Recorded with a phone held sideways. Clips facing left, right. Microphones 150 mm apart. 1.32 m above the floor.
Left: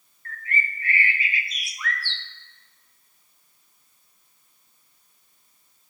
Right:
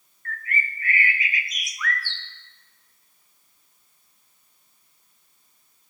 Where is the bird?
30° left (ahead or behind), 0.8 m.